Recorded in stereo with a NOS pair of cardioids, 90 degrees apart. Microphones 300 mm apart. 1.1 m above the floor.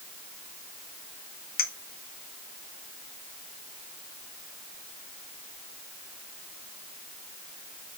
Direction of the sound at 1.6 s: 30° left.